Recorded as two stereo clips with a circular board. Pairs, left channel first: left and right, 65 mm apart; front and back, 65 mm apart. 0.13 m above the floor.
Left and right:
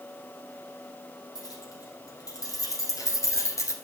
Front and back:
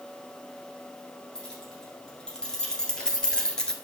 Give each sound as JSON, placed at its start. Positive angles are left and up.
{"t": 1.4, "sound": "keys jangling", "azimuth_deg": 80, "distance_m": 3.5}